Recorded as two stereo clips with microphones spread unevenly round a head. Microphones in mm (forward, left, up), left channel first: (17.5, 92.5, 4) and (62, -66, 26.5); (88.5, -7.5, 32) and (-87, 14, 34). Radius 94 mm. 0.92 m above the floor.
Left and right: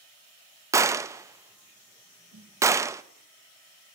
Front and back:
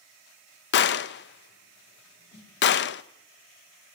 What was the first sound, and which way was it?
A gunshot, straight ahead.